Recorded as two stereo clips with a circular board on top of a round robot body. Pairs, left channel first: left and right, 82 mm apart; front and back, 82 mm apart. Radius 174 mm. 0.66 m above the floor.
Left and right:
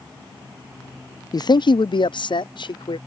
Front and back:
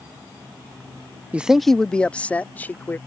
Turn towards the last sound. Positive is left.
turn(degrees=70)